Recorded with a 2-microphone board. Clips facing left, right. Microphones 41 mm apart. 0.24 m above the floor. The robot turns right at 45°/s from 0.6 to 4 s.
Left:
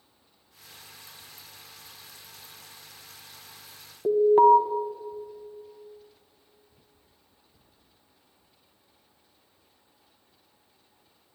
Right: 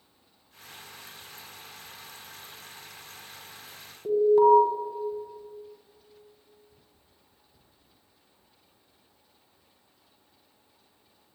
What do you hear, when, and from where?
4.0 s an alarm: 40° left (ahead or behind), 1.7 m